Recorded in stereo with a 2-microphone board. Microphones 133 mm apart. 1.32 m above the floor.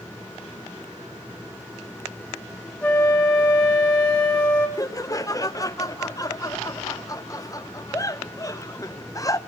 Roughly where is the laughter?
Left.